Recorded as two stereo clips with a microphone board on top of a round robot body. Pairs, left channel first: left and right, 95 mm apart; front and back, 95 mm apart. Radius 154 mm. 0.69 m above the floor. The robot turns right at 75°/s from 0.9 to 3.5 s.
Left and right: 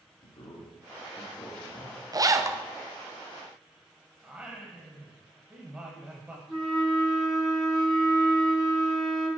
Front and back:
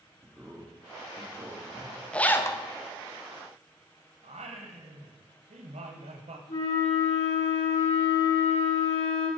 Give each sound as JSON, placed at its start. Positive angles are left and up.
{"t": 0.2, "sound": "a man speaking", "azimuth_deg": 105, "distance_m": 2.0}
{"t": 2.1, "sound": "a zipper", "azimuth_deg": -75, "distance_m": 1.2}
{"t": 4.2, "sound": "singing", "azimuth_deg": -170, "distance_m": 0.9}
{"t": 6.5, "sound": "a flute", "azimuth_deg": -5, "distance_m": 4.5}